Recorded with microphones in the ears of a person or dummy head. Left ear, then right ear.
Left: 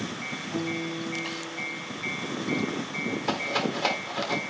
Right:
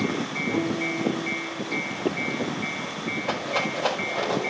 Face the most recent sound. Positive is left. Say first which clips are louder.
# right 1 dB
turn(degrees=60)  # may be behind; listen again after turning